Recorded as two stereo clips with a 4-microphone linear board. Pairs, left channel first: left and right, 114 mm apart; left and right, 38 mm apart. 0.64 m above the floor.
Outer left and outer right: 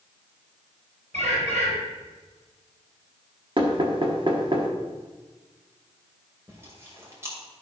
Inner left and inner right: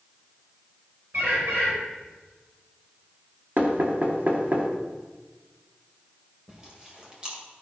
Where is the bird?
75° right (ahead or behind), 4 m.